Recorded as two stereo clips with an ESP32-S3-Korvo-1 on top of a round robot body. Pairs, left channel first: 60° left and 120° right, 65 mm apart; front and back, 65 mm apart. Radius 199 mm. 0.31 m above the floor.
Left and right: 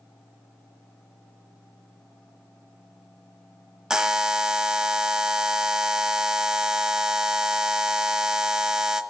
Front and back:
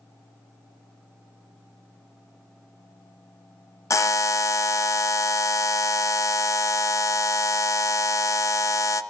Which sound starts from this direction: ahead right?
A buzzer, at 3.9 s.